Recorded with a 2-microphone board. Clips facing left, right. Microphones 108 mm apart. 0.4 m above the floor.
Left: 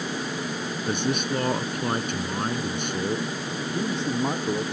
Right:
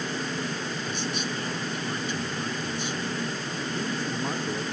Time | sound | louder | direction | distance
0.9 | a man speaking | left 9 dB | 55° left (ahead or behind) | ?
3.7 | a man speaking | left 5 dB | 25° left (ahead or behind) | ?